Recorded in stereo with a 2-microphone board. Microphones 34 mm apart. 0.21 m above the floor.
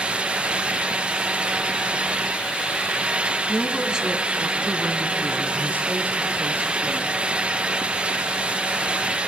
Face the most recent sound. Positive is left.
turn(degrees=-60)  # may be behind; listen again after turning